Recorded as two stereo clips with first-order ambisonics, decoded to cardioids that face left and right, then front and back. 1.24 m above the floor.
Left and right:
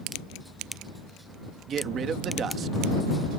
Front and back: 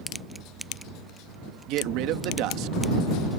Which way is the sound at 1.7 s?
150° right.